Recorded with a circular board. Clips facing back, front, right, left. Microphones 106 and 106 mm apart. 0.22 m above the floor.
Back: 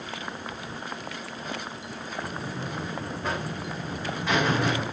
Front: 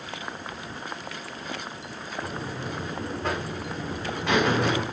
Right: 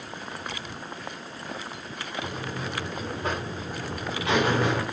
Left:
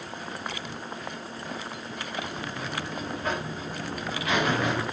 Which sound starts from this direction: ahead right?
A buzzer, at 2.2 s.